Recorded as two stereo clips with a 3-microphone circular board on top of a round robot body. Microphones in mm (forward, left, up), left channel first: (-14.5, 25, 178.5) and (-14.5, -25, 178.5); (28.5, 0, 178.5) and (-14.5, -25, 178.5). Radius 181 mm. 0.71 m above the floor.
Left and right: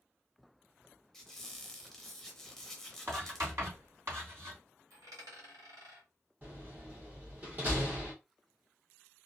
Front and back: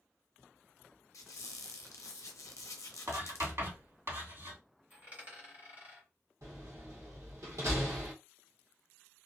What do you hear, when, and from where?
1.1 s a squeak: 5° left, 0.6 m
3.1 s writing: 120° right, 3 m
4.9 s a dropped coin: 90° right, 1.6 m
6.4 s a door slam: 140° right, 1.9 m